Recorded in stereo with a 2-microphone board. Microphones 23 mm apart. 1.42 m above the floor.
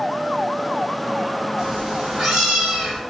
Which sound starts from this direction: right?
A cat meowing, at 1.6 s.